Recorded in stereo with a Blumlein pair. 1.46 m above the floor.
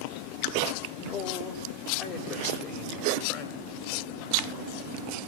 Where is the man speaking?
30° left, 7.5 m; by 4.7 s 40° left, 9.5 m.